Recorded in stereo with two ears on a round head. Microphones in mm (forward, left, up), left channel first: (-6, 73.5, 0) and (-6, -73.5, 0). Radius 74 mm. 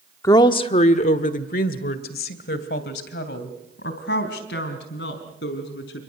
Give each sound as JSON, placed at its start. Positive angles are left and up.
{"t": 0.2, "sound": "a woman speaking", "side_deg": 20, "distance_m": 0.9}